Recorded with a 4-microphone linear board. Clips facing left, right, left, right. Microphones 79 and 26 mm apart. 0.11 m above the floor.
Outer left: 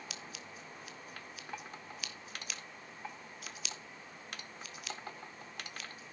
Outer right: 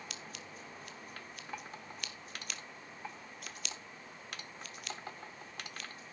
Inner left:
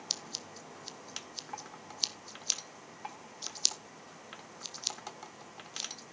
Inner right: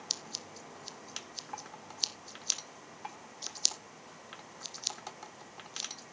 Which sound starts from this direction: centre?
Scissors, at 0.1 s.